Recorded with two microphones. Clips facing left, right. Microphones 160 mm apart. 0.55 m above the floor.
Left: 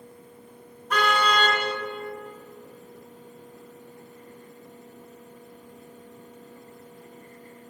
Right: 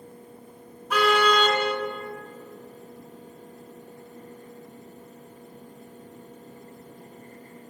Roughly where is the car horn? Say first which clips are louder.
Right 3 dB; centre.